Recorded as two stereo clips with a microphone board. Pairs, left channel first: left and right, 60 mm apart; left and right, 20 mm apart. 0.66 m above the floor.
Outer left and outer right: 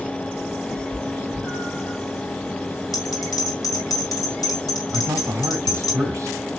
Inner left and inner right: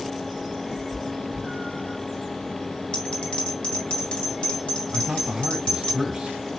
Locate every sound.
0.7 s a cat meowing: 5° right (ahead or behind), 2.5 m
2.9 s a bell: 80° left, 3 m
4.9 s a man speaking: 55° right (ahead or behind), 3 m